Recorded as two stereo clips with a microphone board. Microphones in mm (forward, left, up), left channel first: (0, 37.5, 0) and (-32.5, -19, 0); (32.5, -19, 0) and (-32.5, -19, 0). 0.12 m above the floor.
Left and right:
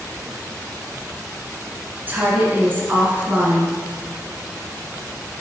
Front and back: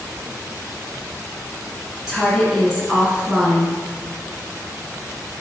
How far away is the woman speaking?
About 1.7 m.